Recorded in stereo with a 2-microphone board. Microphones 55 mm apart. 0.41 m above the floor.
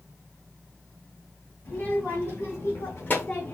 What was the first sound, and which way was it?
A child speaking, 30° left (ahead or behind).